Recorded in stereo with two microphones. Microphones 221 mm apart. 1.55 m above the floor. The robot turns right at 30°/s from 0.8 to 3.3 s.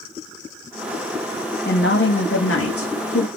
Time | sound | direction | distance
1.6 | a woman speaking | 50° left | 0.5 m